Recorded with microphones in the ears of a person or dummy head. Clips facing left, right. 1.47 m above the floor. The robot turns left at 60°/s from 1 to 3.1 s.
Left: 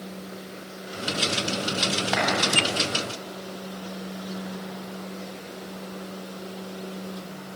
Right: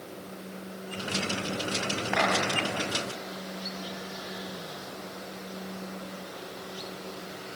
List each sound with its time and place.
2.1 s a clap: 55° left (ahead or behind), 10 m; by 2.3 s 65° left (ahead or behind), 10 m